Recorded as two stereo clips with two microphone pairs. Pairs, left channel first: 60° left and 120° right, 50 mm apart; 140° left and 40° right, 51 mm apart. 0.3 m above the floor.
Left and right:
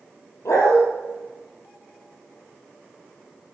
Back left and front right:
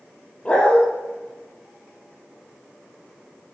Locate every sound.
0.5 s a dog barking: 75° left, 4 m